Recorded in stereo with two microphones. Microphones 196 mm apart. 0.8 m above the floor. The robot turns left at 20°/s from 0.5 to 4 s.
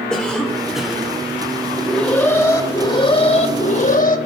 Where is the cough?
5° left (ahead or behind), 3 m; by 1.1 s 5° right (ahead or behind), 3 m.